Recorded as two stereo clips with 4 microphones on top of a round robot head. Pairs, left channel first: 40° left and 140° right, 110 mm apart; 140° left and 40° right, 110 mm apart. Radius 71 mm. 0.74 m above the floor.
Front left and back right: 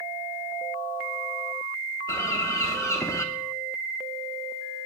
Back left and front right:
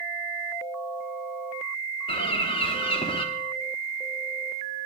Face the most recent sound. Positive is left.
turn(degrees=105)